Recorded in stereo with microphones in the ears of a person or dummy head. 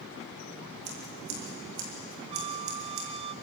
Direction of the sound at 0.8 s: 65° right (ahead or behind).